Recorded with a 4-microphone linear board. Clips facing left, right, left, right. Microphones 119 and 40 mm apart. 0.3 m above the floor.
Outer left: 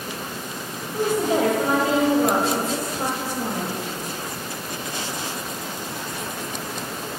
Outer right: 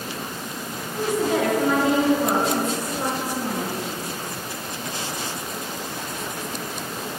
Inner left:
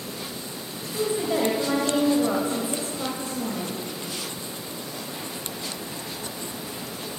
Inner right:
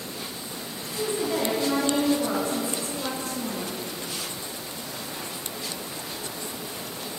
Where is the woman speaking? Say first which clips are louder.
Outer left 1 dB, inner left 2 dB; 30° left (ahead or behind), 1.1 m.